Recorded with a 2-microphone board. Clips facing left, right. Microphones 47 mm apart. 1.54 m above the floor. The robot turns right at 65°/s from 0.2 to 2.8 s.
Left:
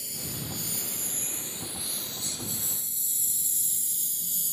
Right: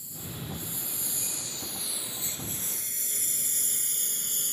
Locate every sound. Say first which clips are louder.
0.0 s a lawn mower: left 2 dB; 75° left (ahead or behind); by 4.5 s 50° right (ahead or behind)